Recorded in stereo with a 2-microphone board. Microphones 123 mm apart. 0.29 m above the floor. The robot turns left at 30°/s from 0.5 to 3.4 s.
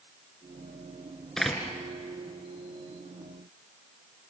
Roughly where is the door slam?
Centre.